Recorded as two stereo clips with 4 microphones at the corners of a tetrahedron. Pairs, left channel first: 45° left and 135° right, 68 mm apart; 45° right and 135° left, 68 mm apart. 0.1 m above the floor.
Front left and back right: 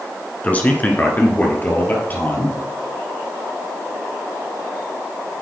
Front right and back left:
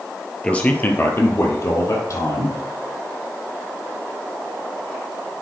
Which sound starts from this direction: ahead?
A man speaking, at 0.4 s.